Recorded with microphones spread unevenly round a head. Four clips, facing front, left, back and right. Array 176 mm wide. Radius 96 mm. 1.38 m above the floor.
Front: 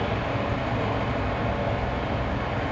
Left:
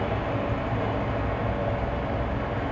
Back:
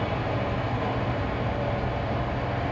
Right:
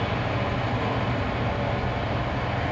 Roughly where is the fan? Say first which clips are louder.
Even, front 1 dB; ahead.